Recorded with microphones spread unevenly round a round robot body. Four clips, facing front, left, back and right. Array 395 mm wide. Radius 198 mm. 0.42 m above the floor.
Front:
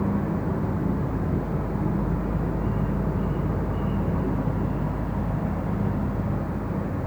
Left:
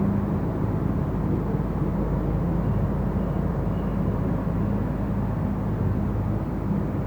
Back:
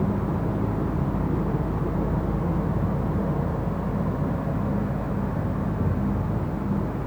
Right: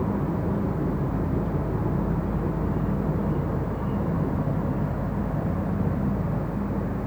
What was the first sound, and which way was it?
Only background noise.